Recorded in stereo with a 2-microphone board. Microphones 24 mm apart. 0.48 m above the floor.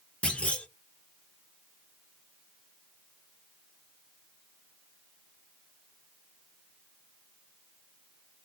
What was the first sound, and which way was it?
A clunk, 60° left (ahead or behind).